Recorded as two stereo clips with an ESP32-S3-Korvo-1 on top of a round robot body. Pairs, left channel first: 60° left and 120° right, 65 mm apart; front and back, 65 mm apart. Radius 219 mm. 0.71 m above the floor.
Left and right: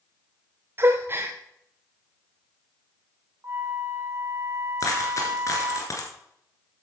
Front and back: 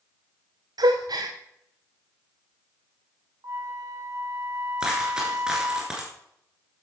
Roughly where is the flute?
Behind.